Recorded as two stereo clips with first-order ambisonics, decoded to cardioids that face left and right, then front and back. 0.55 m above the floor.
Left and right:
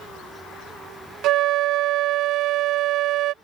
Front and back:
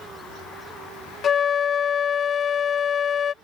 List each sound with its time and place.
1.2 s a flute: 60° right